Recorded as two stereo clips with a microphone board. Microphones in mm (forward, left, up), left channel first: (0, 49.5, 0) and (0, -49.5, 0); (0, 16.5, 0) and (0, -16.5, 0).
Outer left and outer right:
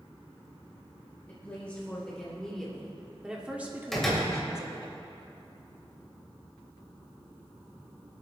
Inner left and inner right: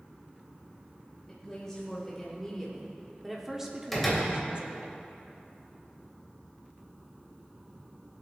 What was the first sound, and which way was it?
A woman speaking, 15° left (ahead or behind).